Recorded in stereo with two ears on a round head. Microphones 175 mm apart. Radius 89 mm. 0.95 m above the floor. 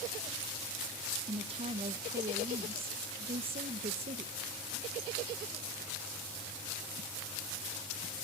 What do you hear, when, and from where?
1.3 s a woman speaking: 30° right (ahead or behind), 0.7 m